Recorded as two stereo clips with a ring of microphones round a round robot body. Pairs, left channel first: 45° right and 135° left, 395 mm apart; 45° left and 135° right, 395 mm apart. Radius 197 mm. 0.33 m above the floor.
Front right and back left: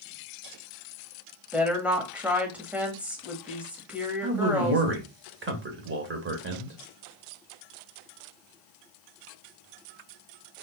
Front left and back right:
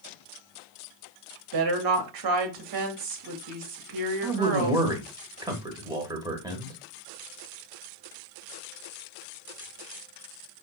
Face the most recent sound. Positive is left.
turn(degrees=155)